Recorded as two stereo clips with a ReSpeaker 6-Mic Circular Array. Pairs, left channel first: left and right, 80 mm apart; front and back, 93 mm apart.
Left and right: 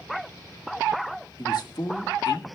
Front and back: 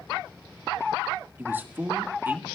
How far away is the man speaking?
About 1.6 m.